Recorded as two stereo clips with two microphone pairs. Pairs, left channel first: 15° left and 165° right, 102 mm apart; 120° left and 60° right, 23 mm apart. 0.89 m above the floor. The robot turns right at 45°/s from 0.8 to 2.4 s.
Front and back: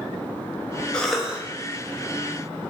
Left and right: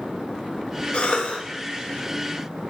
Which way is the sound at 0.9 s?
90° left.